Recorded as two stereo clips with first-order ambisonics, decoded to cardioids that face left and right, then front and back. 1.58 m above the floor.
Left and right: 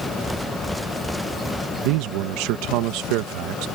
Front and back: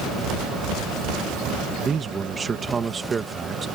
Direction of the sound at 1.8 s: 110° right.